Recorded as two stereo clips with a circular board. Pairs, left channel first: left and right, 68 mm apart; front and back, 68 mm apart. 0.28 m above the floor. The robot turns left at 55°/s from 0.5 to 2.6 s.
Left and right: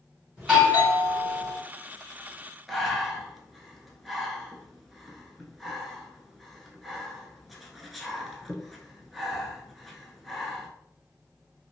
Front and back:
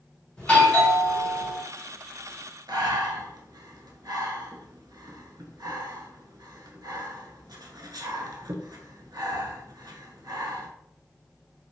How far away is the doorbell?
About 1.6 m.